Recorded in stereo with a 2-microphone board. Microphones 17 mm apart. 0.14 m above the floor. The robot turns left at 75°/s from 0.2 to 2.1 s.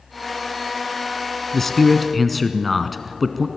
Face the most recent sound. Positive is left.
turn(degrees=5)  # may be behind; listen again after turning